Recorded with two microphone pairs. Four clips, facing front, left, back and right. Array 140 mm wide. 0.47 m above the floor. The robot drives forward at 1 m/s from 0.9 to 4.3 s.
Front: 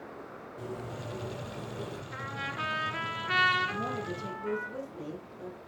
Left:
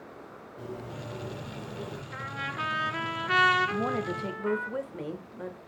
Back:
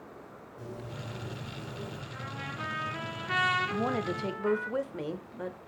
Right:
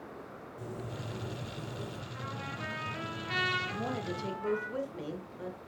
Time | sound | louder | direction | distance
0.6 | a bird | left 3 dB, front 3 dB | 20° left | 2.5 m
2.1 | a trumpet | left 8 dB, front 4 dB | 55° left | 2 m
3.7 | a woman speaking | left 6 dB, back 4 dB | 135° left | 0.8 m